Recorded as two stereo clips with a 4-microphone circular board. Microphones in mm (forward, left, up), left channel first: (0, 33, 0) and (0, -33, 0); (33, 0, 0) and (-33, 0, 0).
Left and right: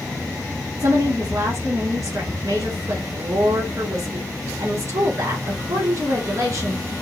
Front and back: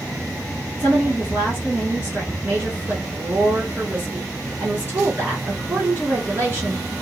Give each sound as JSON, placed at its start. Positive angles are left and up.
{"t": 0.8, "sound": "a woman speaking", "azimuth_deg": -125, "distance_m": 2.5}